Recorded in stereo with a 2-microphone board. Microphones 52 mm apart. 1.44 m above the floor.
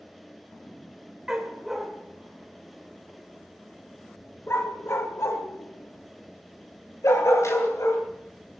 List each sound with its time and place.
1.3 s a dog barking: 10° right (ahead or behind), 2 m; by 8.0 s 70° left (ahead or behind), 3.5 m